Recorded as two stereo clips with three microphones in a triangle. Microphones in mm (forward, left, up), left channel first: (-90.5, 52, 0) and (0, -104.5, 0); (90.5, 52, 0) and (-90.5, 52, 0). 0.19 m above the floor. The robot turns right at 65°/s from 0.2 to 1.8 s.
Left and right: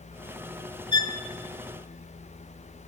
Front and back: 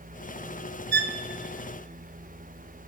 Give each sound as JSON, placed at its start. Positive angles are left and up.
{"t": 0.9, "sound": "a violin", "azimuth_deg": -175, "distance_m": 0.9}